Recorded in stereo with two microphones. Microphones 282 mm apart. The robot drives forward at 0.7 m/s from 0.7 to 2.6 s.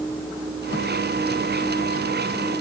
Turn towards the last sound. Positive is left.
No sound to turn to.